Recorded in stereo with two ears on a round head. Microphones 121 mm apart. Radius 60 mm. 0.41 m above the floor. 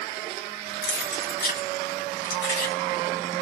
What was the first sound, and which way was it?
Keys jangling, 65° left (ahead or behind).